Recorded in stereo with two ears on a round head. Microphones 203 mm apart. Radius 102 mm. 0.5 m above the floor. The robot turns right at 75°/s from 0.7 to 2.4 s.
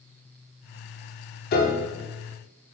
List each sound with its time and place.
1.5 s a piano: 40° left (ahead or behind), 0.7 m; by 1.9 s 45° left (ahead or behind), 0.7 m